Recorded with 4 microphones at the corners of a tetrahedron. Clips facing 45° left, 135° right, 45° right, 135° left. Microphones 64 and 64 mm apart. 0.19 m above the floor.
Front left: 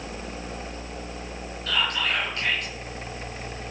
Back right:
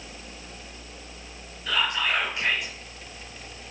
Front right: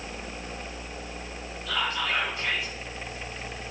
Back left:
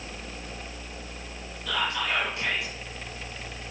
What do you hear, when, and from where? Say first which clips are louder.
1.7 s whispering: even, even; 145° left, 3 m